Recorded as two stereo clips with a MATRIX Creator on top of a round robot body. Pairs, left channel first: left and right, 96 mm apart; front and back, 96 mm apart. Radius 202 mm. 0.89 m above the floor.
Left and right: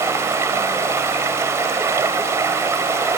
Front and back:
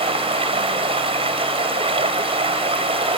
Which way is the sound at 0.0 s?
155° right.